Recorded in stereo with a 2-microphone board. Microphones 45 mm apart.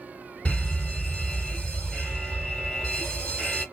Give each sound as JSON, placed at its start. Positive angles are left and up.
{"t": 0.5, "sound": "a fire alarm", "side_deg": 20, "distance_m": 2.5}